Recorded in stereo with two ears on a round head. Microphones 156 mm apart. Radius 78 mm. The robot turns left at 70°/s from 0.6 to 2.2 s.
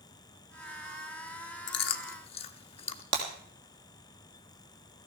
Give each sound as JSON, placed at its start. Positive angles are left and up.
{"t": 1.7, "sound": "chewing", "side_deg": 70, "distance_m": 0.8}
{"t": 3.1, "sound": "breaking glass", "side_deg": -65, "distance_m": 2.5}